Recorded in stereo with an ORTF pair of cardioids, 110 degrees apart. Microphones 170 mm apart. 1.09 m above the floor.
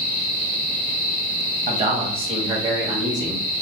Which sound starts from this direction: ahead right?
A man speaking, at 1.7 s.